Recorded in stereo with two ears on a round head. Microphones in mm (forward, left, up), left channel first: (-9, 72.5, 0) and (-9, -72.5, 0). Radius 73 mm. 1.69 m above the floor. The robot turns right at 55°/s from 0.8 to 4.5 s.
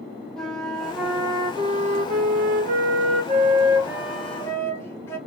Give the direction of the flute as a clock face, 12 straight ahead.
6 o'clock.